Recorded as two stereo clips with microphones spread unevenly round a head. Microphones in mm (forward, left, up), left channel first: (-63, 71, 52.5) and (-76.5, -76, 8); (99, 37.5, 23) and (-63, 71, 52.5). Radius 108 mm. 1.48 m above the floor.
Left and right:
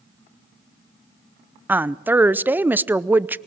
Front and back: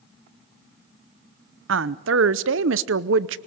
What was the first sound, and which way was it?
A woman speaking, 175° right.